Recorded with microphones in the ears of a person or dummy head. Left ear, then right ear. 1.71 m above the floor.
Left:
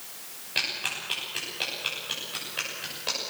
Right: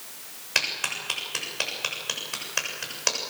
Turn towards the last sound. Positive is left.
turn(degrees=-55)  # may be behind; listen again after turning